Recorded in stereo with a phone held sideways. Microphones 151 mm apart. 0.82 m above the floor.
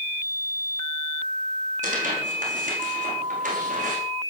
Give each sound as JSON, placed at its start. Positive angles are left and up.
{"t": 1.8, "sound": "tearing paper", "side_deg": -55, "distance_m": 8.5}